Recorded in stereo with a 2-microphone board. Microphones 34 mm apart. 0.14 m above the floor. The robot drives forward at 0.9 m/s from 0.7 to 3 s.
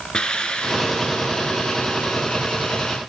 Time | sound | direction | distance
0.1 | a hiss | 20° left (ahead or behind) | 2.5 m